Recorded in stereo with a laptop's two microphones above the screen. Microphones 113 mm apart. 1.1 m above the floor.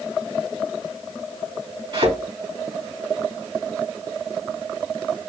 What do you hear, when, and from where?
1.9 s a thud: 55° right (ahead or behind), 3 m